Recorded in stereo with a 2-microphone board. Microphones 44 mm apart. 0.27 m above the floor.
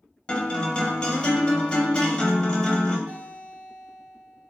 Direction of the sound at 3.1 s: 55° right (ahead or behind).